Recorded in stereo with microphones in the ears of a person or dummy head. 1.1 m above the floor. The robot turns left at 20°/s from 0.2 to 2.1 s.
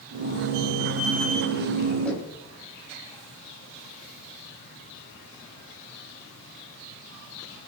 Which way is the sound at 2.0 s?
5° left (ahead or behind).